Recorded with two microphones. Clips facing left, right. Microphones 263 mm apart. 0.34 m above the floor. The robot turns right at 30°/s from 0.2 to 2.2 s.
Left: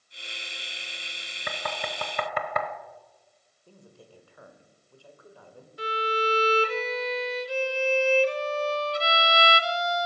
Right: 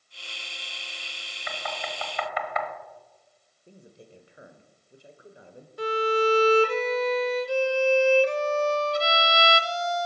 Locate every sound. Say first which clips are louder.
1.5 s knocking: left 2 dB; 55° left (ahead or behind), 1.1 m; by 2.7 s 50° left (ahead or behind), 1.1 m
3.7 s a man speaking: right 2 dB; 20° right (ahead or behind), 1.5 m
5.8 s a violin: right 6 dB; 55° right (ahead or behind), 0.6 m